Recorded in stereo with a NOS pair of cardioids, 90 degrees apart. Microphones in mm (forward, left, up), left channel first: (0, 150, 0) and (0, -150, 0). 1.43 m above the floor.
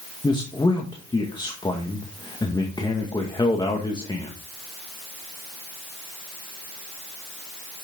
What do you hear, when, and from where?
0.2 s a man speaking: 15° left, 1.9 m